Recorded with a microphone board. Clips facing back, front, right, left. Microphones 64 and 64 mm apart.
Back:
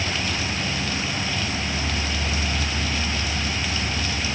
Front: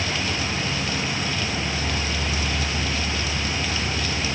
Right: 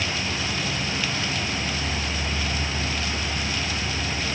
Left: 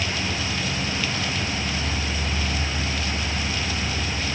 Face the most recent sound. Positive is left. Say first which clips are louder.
# even, left 1 dB
turn(degrees=-5)